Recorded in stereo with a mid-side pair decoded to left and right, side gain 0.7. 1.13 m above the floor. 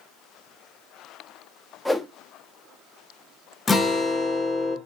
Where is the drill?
I don't hear a drill.